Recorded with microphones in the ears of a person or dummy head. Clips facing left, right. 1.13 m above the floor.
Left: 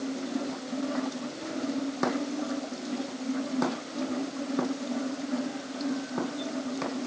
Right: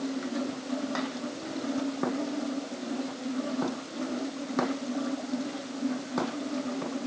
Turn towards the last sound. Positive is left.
No sound to turn to.